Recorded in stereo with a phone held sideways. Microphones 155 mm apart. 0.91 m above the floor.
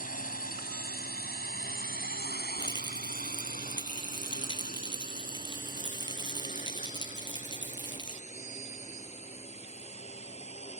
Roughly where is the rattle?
Left.